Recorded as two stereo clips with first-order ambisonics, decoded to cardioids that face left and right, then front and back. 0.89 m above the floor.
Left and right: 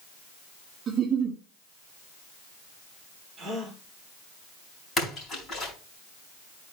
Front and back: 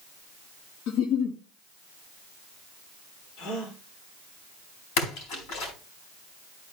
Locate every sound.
0.9 s a giggle: 30° right, 1.6 m
3.4 s a gasp: 25° right, 3.5 m
5.0 s a splash: 15° left, 4 m